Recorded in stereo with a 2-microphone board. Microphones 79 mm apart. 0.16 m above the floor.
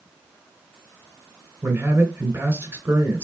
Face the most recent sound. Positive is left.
turn(degrees=-25)  # may be behind; listen again after turning